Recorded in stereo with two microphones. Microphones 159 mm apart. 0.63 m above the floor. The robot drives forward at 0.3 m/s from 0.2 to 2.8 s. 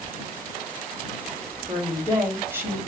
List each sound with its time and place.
1.7 s a woman speaking: 10° right (ahead or behind), 1.0 m; by 2.8 s 15° right (ahead or behind), 0.9 m